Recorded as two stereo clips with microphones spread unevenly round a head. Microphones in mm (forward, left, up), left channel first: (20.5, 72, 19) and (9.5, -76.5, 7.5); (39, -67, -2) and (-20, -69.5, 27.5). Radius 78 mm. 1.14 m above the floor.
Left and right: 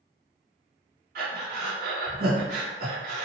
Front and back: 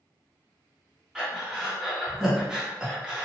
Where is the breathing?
85° right, 1.1 m.